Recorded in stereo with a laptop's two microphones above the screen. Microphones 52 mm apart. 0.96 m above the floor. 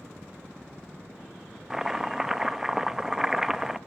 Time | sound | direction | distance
1.7 | chopping | 10° right (ahead or behind) | 1.5 m